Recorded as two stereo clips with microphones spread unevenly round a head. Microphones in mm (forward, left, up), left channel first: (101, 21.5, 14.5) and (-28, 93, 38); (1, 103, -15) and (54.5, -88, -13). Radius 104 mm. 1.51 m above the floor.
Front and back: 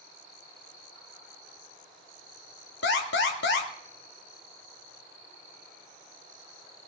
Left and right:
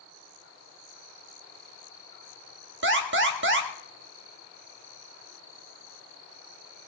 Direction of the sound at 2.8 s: 50° right.